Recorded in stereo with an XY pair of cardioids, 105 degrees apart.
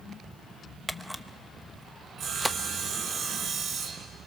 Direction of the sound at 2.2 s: 60° right.